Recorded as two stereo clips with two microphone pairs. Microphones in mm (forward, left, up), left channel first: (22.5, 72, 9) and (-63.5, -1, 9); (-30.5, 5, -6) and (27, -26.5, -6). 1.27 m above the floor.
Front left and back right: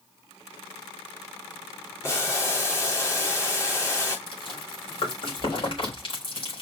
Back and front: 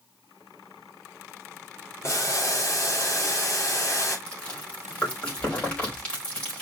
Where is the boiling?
105° left, 3.5 m.